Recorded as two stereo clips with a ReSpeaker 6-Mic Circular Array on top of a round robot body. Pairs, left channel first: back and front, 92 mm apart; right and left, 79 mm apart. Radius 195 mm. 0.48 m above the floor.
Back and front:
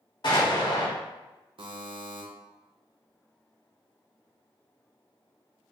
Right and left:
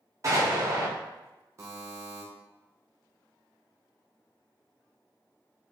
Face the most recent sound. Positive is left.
turn(degrees=35)